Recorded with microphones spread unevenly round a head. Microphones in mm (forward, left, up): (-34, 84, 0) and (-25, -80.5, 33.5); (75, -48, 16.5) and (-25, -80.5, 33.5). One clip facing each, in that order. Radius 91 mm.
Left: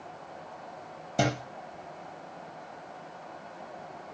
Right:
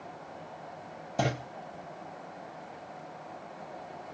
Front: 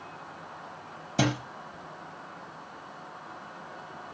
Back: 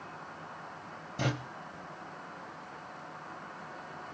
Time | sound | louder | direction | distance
1.2 | a thud | left 3 dB, front 7 dB | 20° left | 5.5 m